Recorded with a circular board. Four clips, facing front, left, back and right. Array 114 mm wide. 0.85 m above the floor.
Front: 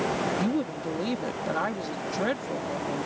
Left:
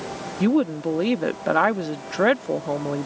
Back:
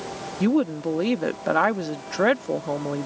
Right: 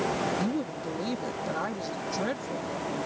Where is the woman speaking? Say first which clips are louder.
Left 10 dB, back 6 dB; 125° left.